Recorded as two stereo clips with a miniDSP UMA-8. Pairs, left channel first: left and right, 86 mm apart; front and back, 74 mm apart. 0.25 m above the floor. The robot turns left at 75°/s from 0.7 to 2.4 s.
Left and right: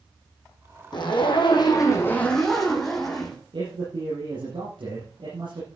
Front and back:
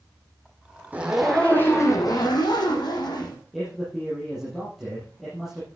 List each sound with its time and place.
0.9 s a zipper: 115° left, 3 m; by 3.4 s straight ahead, 3 m
3.5 s a man speaking: 90° right, 6.5 m